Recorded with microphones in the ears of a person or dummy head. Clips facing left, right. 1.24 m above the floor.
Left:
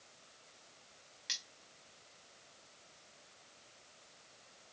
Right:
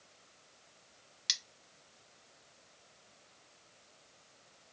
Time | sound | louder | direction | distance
1.3 | cutlery clinking | right 3 dB | 60° right (ahead or behind) | 0.6 m